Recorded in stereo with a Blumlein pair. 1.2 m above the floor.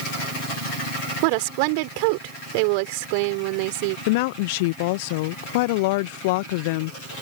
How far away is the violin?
No violin in this recording.